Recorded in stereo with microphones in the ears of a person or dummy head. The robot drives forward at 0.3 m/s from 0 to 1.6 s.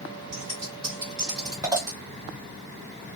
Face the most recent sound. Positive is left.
turn(degrees=-20)  # may be behind; listen again after turning